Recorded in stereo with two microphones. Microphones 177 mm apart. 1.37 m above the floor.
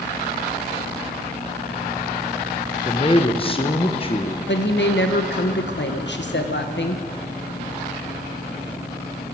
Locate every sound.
2.9 s a man speaking: 30° left (ahead or behind), 0.8 m
4.5 s a woman speaking: 85° left, 1.1 m